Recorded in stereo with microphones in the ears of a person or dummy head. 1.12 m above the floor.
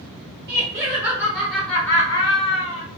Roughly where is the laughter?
Right.